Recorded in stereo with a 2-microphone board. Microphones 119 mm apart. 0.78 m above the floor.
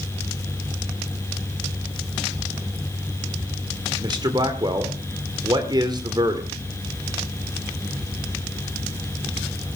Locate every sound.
4.0 s a man speaking: 40° right (ahead or behind), 2 m